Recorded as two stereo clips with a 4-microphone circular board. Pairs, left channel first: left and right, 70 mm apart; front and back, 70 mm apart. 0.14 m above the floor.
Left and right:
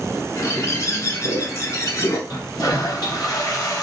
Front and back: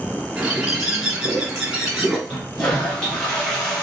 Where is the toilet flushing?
75° left, 3 m.